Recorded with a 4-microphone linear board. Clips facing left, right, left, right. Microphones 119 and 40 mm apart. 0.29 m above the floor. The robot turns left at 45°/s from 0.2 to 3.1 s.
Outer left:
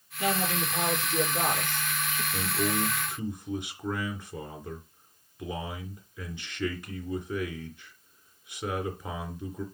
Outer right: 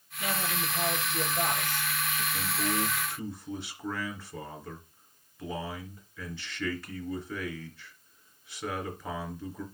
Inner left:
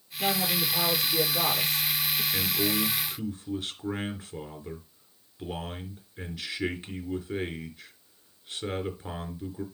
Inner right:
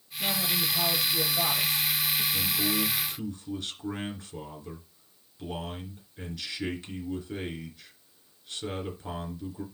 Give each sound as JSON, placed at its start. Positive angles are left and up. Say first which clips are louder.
{"t": 0.2, "sound": "a woman speaking", "louder": "outer left 5 dB, inner left 2 dB", "azimuth_deg": 140, "distance_m": 7.0}
{"t": 2.3, "sound": "a man speaking", "louder": "outer left 3 dB, inner left 1 dB", "azimuth_deg": 50, "distance_m": 3.5}